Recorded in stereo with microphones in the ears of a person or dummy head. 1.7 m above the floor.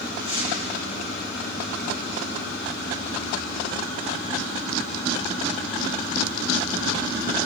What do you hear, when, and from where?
0.2 s tearing paper: 20° right (ahead or behind), 9 m